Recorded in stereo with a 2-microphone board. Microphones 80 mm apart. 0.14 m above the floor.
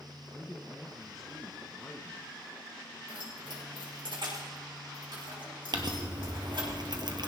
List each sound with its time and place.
0.3 s a man speaking: 5° left (ahead or behind), 1.6 m
3.1 s keys jangling: 75° right (ahead or behind), 6 m
5.7 s crumpling: 60° right (ahead or behind), 1.3 m